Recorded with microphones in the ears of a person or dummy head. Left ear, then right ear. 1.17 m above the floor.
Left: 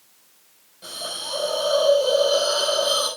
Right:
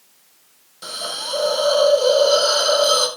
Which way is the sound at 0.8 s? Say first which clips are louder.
Right 4 dB; 45° right (ahead or behind).